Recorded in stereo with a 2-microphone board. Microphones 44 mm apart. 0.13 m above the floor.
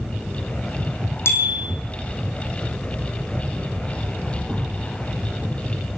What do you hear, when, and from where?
1.2 s a bicycle bell: 70° left (ahead or behind), 4.5 m